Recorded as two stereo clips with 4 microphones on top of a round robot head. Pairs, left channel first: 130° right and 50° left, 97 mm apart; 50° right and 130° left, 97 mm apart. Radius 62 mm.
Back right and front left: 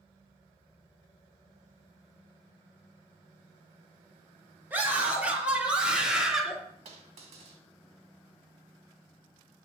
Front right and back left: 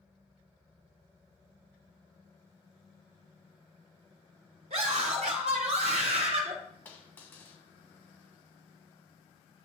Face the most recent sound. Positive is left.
turn(degrees=25)